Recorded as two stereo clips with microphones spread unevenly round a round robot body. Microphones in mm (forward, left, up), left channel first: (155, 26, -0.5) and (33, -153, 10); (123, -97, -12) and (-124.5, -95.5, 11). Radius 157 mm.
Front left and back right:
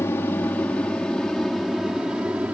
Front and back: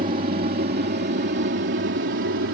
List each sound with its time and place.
0.0 s an aircraft: 130° left; by 2.5 s 150° left